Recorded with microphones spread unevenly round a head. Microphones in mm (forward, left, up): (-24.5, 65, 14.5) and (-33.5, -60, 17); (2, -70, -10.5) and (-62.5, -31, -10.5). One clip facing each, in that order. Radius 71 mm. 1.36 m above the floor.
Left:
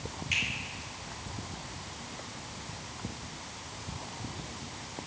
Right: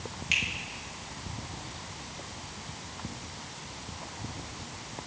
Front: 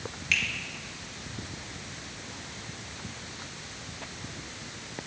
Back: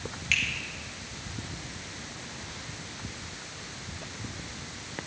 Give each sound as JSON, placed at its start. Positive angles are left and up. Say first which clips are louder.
{"t": 0.3, "sound": "a finger snap", "louder": "right 2 dB, even", "azimuth_deg": -115, "distance_m": 2.5}